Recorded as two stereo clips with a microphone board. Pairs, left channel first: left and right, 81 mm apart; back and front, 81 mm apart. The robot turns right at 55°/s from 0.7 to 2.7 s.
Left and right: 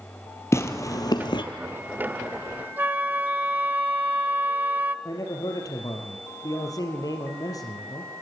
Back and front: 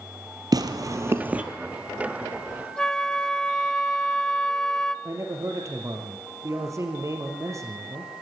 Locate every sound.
0.5 s tearing paper: 35° left, 1.7 m; by 1.4 s 75° left, 1.7 m
2.8 s a flute: 110° right, 0.7 m
5.0 s a man speaking: 50° left, 3.5 m